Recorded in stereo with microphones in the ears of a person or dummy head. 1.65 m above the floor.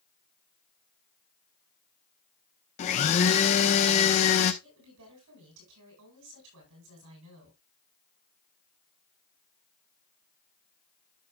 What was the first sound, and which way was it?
A blender, 35° left (ahead or behind).